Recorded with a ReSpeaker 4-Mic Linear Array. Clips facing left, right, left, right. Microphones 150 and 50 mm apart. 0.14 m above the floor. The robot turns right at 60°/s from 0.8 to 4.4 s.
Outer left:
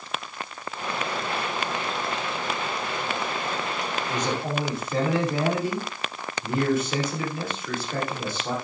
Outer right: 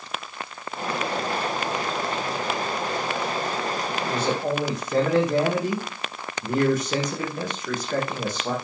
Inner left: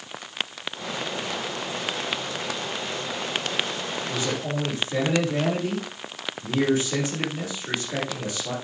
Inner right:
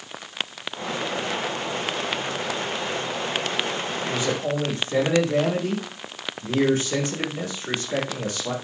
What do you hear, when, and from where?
4.1 s a man speaking: 25° right (ahead or behind), 7.5 m; by 8.5 s 40° right (ahead or behind), 7.5 m